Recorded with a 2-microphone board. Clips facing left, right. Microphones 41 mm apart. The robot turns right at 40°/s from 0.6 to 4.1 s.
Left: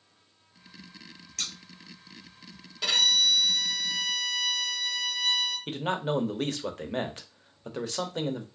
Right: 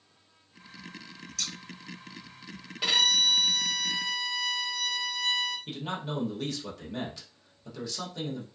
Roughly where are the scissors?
Left.